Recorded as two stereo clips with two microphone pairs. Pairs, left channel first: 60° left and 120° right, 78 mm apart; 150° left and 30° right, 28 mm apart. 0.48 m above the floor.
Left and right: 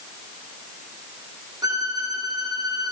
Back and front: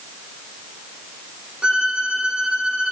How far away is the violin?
About 5 m.